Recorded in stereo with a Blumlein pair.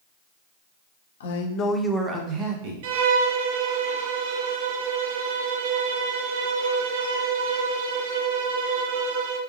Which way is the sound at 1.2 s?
60° left.